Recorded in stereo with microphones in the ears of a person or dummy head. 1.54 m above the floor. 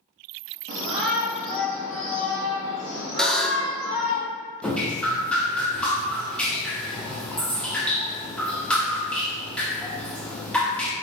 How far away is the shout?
About 0.6 m.